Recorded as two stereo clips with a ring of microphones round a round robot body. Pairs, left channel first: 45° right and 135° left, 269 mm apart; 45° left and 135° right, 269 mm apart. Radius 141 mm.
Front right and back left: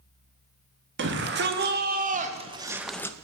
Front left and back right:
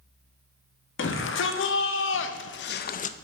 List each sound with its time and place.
1.0 s a shout: 90° left, 1.3 m; by 3.2 s 15° left, 0.5 m